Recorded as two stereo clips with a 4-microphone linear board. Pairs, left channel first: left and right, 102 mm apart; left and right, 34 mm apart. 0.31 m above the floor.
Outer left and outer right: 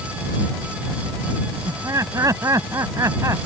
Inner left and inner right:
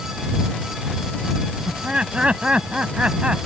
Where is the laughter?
35° right (ahead or behind).